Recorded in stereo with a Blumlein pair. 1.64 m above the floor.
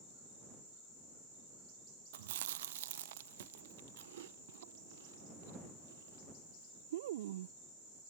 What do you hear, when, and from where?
2.1 s chewing: 55° right